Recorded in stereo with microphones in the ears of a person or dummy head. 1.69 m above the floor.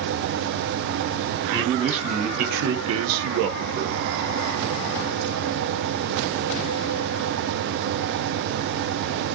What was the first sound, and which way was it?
A man speaking, 30° right (ahead or behind).